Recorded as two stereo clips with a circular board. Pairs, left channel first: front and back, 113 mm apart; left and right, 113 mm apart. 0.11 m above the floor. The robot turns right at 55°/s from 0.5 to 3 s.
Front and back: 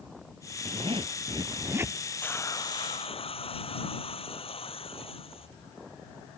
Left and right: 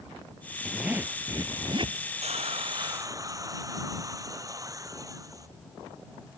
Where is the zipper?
Straight behind; by 2.0 s 105° right.